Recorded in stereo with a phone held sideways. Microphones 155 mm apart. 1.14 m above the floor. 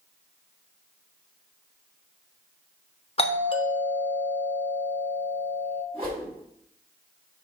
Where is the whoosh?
35° right (ahead or behind), 4 m.